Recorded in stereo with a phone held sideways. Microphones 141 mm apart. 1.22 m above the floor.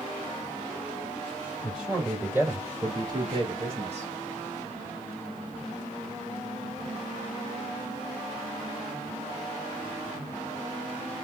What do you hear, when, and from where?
1.6 s a man speaking: centre (ahead or behind), 2 m; by 4.1 s 50° right (ahead or behind), 2 m